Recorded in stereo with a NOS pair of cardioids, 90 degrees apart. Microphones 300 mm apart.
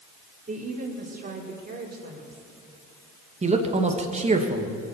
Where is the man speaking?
20° right, 2.0 m.